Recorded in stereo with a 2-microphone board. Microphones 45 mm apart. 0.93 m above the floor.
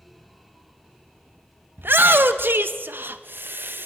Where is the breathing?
I don't hear breathing.